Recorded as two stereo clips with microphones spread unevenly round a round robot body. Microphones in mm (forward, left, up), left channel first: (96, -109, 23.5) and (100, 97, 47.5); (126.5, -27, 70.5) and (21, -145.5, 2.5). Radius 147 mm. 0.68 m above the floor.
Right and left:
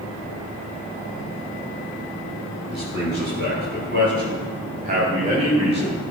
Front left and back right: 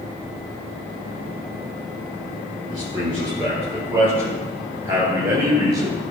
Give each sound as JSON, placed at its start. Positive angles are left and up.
{"t": 2.7, "sound": "a man speaking", "azimuth_deg": 145, "distance_m": 6.5}